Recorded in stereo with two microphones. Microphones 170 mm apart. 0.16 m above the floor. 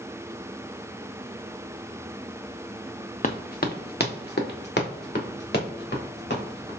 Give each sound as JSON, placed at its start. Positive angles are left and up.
{"t": 3.2, "sound": "running footsteps", "side_deg": 50, "distance_m": 0.7}